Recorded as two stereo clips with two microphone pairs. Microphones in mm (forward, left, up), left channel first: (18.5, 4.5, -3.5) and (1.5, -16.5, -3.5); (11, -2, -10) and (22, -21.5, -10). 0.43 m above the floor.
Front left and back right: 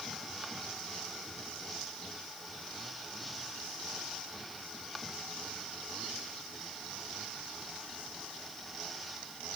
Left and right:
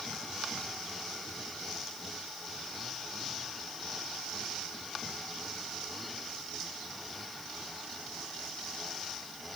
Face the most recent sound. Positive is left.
No sound to turn to.